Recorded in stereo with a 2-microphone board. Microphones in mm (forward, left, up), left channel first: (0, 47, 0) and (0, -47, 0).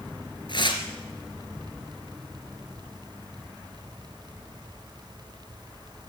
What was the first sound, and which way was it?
Tearing paper, 50° left (ahead or behind).